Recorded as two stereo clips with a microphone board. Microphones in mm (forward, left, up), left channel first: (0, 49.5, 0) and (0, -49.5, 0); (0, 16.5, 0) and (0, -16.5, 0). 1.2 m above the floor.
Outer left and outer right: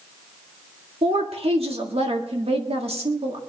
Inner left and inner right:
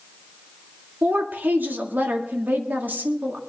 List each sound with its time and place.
1.0 s a woman speaking: 80° right, 1.8 m